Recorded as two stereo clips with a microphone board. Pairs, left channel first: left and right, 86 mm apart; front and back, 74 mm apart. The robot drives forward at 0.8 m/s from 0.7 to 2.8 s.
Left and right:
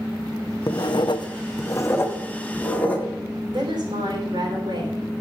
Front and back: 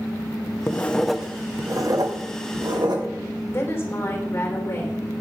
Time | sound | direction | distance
0.7 | writing | 55° left | 0.6 m
3.5 | a woman speaking | 60° right | 3 m